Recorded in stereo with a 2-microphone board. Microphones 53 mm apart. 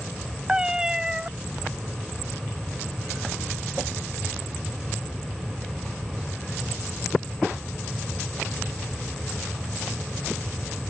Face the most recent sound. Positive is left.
turn(degrees=-15)  # may be behind; listen again after turning